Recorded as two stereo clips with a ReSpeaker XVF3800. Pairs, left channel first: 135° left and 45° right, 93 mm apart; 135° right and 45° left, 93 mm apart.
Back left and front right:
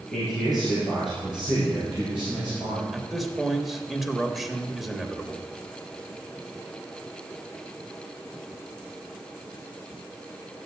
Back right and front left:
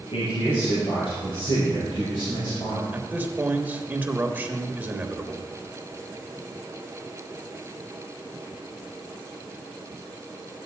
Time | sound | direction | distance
0.1 | a man speaking | 135° right | 5.5 m
2.9 | a man speaking | 40° left | 1.1 m